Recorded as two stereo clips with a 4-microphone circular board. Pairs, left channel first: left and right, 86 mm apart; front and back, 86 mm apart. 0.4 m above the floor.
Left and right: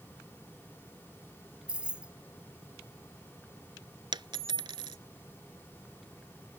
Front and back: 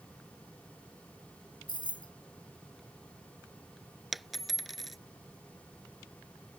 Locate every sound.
1.7 s keys jangling: 15° right
4.1 s a dropped coin: 90° right